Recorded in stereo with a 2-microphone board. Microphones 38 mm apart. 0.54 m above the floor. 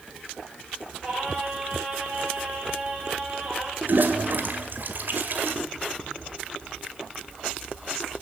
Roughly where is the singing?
Right.